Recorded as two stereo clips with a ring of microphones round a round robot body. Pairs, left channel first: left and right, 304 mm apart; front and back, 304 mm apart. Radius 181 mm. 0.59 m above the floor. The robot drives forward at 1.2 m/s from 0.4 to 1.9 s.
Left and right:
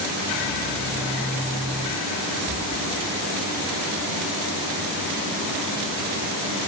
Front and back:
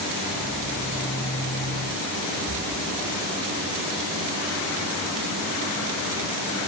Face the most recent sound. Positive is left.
turn(degrees=-145)